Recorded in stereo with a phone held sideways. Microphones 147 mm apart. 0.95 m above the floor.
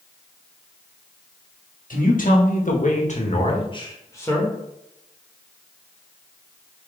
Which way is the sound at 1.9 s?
70° left (ahead or behind).